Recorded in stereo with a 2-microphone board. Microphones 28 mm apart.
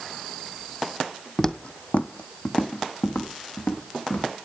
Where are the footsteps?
20° left (ahead or behind), 0.7 m; by 4.3 s 80° left, 3 m.